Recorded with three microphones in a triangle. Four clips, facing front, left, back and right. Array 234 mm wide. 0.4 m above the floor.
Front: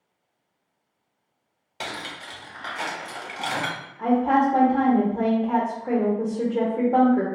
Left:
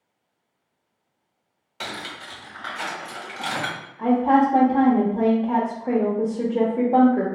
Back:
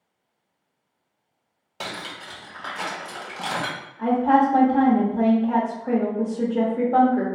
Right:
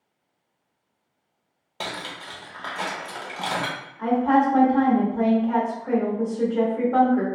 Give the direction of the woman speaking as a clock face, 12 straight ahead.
9 o'clock.